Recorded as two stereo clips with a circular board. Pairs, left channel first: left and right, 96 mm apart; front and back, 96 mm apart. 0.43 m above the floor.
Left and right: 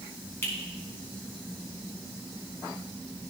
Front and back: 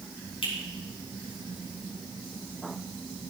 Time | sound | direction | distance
0.4 | a finger snap | 25° left | 3 m